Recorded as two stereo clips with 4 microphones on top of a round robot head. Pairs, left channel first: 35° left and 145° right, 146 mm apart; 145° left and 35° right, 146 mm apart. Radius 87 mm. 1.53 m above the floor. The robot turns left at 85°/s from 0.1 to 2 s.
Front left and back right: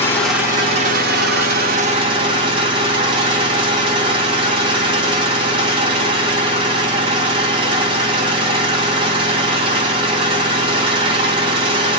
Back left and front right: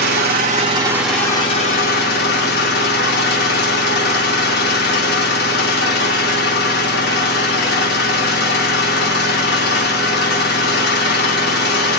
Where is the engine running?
40° right, 1.9 m; by 12.0 s 160° left, 1.9 m.